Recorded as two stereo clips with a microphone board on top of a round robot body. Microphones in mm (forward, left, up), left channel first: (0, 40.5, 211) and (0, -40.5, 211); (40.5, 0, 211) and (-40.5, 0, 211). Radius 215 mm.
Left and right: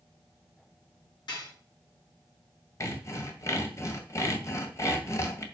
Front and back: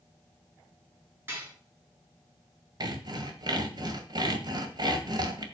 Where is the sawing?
145° left, 2.0 m.